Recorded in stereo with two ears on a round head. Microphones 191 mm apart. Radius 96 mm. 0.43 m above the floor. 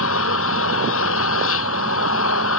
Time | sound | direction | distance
0.0 | an engine running | 75° left (ahead or behind) | ?